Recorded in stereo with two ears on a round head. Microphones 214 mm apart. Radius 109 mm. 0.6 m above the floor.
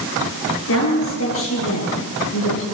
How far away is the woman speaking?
About 9.5 m.